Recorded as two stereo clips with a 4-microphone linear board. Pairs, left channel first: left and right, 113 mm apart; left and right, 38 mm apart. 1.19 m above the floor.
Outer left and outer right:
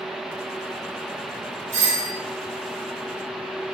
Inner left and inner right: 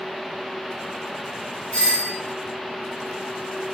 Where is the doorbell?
25° left (ahead or behind), 1.5 m.